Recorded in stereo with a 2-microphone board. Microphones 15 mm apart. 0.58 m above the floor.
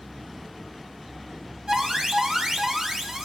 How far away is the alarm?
About 3 m.